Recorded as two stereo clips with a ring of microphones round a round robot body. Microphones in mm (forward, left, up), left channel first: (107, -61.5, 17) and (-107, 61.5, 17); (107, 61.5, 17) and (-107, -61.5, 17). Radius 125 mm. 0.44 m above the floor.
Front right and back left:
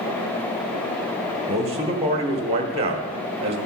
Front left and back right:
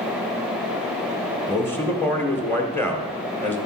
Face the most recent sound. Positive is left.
turn(degrees=105)